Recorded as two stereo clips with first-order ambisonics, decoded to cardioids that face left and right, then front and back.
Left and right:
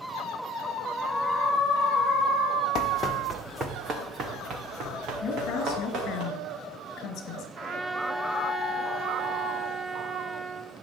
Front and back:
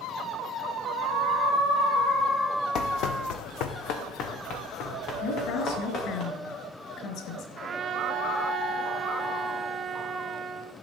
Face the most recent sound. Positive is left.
turn(degrees=-120)